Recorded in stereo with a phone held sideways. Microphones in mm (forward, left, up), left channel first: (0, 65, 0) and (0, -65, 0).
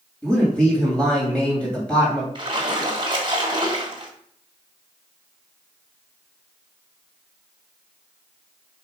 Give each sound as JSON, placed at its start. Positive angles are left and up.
{"t": 0.2, "sound": "a man speaking", "side_deg": 10, "distance_m": 3.0}
{"t": 2.4, "sound": "a splash", "side_deg": -40, "distance_m": 1.9}